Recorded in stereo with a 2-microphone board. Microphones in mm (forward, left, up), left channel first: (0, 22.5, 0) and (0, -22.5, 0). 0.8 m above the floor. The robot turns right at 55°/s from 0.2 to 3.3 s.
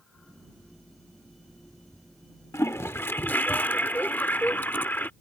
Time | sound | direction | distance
2.5 | a toilet flushing | 90° left | ?